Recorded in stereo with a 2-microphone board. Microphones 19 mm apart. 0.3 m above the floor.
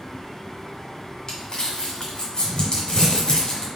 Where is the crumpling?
40° left (ahead or behind), 1.7 m.